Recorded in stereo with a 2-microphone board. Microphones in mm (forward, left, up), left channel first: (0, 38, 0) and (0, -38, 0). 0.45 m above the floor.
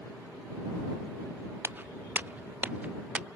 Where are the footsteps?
25° right (ahead or behind); by 3.3 s 15° right (ahead or behind).